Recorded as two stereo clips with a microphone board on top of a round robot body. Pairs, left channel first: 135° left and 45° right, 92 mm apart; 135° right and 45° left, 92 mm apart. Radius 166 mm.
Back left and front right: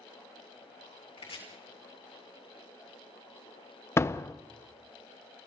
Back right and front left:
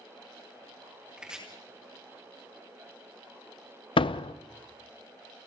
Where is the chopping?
125° left, 4.5 m.